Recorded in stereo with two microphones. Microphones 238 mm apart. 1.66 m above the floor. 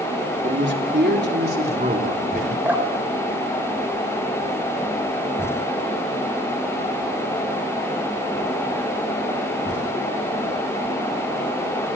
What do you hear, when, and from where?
0.4 s a man speaking: 50° right (ahead or behind), 3.5 m; by 2.5 s 35° right (ahead or behind), 4 m
2.6 s dripping: 5° right (ahead or behind), 4 m